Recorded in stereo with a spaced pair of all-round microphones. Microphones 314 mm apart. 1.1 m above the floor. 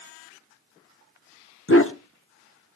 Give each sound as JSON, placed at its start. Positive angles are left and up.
{"t": 1.7, "sound": "a dog barking", "side_deg": 45, "distance_m": 1.0}